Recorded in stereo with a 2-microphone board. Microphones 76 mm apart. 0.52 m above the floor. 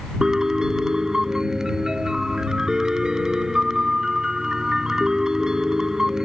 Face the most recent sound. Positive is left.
turn(degrees=-5)  # may be behind; listen again after turning